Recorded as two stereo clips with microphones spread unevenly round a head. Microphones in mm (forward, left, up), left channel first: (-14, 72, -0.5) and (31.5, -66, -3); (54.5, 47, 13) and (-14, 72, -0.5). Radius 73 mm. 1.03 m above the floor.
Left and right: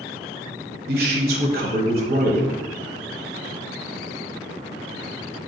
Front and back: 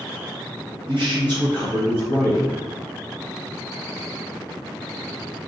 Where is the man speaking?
100° right, 0.7 m.